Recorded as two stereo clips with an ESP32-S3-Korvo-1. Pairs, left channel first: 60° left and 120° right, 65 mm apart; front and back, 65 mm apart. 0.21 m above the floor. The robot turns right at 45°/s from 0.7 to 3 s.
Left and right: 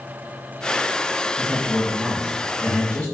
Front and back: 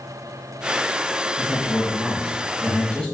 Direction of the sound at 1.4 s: 50° right.